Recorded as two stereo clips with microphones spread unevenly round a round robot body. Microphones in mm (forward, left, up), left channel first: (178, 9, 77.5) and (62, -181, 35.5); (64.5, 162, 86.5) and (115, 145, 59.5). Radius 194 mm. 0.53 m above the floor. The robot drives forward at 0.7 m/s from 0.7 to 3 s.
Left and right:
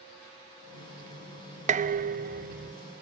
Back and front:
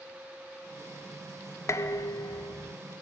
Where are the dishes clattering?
140° right, 0.6 m; by 2.8 s 165° right, 1.2 m.